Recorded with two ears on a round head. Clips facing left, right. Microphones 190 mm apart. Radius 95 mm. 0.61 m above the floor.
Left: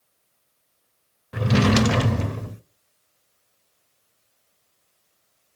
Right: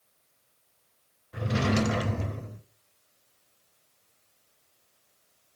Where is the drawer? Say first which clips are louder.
Left 8 dB; 70° left (ahead or behind), 0.6 m.